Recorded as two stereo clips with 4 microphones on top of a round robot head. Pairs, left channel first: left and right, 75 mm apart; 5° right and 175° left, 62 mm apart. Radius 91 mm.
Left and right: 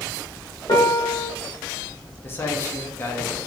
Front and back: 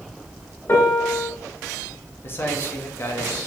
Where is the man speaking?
40° left, 1.8 m.